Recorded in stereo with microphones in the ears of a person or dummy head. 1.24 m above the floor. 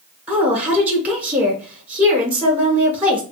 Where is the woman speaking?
5° right (ahead or behind), 0.9 m.